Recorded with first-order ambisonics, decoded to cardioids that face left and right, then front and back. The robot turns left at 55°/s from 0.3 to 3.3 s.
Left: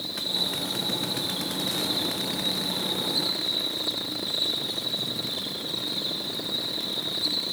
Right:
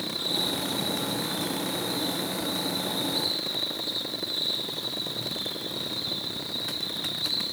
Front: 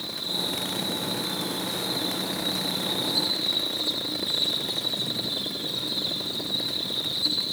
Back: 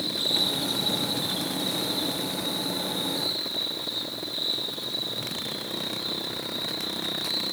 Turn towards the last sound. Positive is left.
turn(degrees=25)